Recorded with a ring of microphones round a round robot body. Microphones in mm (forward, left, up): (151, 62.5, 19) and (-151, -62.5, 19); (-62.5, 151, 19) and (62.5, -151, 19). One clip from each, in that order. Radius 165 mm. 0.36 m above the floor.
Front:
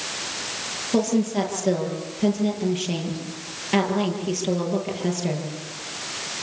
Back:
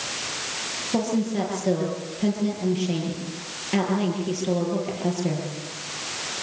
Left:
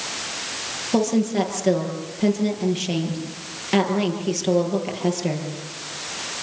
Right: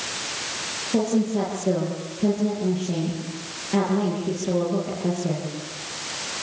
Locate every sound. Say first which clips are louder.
0.9 s a woman speaking: front 4 dB, left 3 dB; 100° left, 9.5 m